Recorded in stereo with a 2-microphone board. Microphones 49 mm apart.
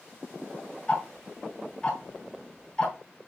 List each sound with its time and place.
0.9 s ticking: 15° left (ahead or behind), 2 m